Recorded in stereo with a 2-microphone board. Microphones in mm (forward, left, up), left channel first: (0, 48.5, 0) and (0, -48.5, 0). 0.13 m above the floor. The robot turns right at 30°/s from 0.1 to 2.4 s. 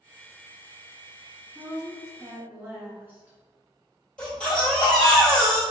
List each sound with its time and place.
1.6 s a woman speaking: 25° right (ahead or behind), 1.1 m; by 3.4 s 20° right (ahead or behind), 1.1 m
4.2 s a baby crying: 10° left (ahead or behind), 2.0 m